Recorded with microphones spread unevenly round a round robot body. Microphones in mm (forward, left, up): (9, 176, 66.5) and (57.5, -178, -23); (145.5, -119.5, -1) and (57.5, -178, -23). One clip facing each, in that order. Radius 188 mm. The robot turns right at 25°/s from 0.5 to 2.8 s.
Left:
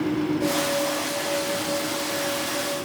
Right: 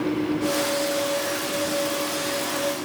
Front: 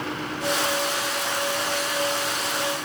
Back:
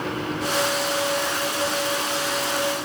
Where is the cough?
I don't hear a cough.